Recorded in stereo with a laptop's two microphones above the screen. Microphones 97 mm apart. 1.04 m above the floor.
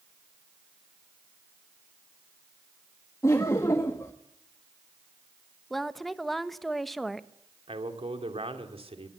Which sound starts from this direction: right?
A man speaking, at 7.7 s.